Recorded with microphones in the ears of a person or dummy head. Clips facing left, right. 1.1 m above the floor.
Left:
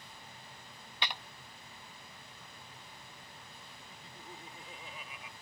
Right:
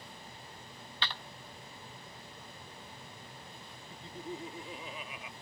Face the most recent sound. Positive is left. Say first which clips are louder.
# right 11 dB
turn(degrees=-60)  # may be behind; listen again after turning